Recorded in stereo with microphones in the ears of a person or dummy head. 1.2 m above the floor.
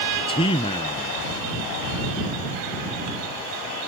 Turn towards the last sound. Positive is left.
turn(degrees=20)  # may be behind; listen again after turning